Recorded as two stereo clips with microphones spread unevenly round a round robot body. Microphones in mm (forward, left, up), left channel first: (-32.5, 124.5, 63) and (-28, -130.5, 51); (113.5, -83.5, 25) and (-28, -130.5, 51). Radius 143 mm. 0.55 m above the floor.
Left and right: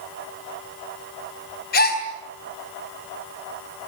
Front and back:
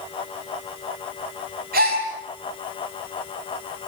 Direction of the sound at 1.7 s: 145° left.